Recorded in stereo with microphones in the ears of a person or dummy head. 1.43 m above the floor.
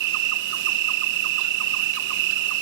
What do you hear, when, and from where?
0.0 s an insect: 60° right (ahead or behind)